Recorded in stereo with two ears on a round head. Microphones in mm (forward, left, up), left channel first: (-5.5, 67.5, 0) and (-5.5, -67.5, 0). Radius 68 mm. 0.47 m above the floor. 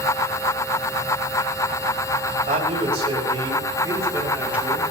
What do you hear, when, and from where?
2.5 s a man speaking: 55° right (ahead or behind), 3 m; by 4.8 s 5° right (ahead or behind), 3.5 m